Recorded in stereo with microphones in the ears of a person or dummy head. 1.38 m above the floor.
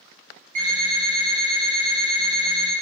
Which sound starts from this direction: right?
An alarm clock, at 0.6 s.